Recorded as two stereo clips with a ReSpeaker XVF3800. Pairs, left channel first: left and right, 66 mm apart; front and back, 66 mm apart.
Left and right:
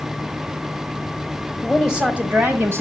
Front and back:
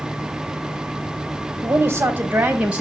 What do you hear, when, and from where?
1.6 s a woman speaking: 175° left, 1.3 m; by 2.8 s 110° right, 1.6 m